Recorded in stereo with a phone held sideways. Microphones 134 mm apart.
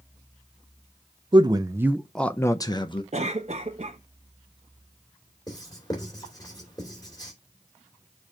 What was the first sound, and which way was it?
A man speaking, 35° right (ahead or behind).